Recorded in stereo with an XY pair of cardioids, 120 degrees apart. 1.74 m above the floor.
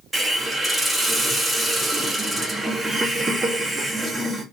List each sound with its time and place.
0.1 s a hiss: 5° right, 1.4 m